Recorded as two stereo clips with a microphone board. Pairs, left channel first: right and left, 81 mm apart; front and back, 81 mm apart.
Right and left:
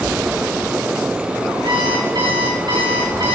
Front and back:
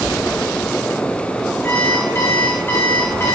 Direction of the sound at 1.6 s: 65° left.